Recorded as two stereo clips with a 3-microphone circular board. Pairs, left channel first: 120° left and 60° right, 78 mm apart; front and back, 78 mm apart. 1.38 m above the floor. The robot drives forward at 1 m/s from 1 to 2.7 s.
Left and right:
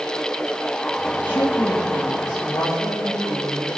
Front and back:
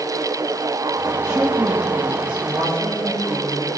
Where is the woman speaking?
135° left, 1.4 m; by 3.8 s 155° left, 2.5 m.